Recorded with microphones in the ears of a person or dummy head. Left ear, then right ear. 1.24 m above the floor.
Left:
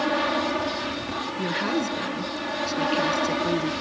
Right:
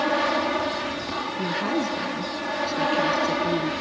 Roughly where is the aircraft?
Centre.